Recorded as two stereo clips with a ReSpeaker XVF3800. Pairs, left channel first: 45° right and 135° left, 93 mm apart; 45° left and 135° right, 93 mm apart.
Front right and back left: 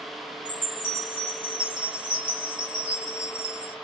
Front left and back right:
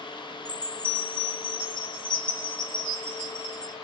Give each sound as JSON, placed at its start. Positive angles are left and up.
{"t": 0.5, "sound": "a chime", "azimuth_deg": 120, "distance_m": 1.9}